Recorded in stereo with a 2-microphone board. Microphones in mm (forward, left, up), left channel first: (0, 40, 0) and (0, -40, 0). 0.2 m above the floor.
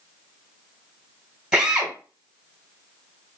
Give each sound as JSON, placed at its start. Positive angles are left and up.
{"t": 1.5, "sound": "a drill", "side_deg": -10, "distance_m": 1.1}